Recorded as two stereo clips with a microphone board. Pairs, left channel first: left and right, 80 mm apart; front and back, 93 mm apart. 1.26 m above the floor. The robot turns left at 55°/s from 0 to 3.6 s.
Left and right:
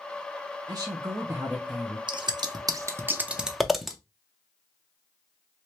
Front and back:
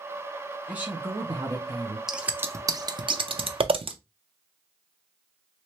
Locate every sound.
0.7 s a woman speaking: 105° right, 0.8 m; by 2.0 s 175° right, 0.8 m
2.1 s scissors: 95° right, 0.5 m; by 4.0 s straight behind, 0.5 m